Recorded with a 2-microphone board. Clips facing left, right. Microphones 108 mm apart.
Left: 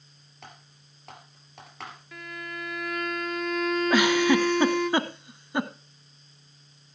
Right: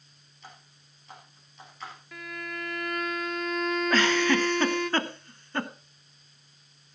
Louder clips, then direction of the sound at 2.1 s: Right 1 dB; centre (ahead or behind).